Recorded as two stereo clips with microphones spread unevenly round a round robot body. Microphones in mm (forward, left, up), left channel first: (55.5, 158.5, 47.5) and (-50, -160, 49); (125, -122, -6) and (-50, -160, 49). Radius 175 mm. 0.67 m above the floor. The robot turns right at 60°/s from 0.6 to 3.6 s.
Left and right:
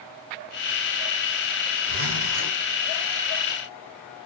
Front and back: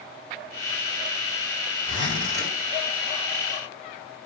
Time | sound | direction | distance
1.9 | a zipper | 165° right | 2 m